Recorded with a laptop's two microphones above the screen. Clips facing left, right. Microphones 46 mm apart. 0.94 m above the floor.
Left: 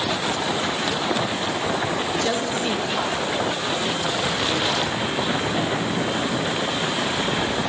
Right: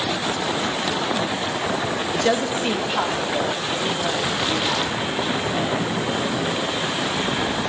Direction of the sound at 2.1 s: 25° right (ahead or behind).